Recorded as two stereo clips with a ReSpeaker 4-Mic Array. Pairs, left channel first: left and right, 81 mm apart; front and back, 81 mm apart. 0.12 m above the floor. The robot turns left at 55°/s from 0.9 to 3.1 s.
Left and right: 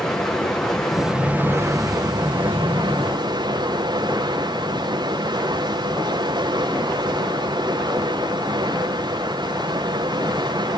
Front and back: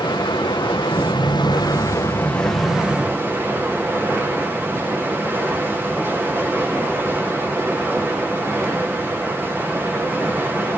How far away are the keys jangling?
I don't hear keys jangling.